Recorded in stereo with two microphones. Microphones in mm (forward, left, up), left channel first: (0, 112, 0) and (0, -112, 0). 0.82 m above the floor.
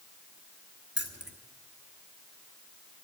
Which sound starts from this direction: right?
Keys jangling, at 1.0 s.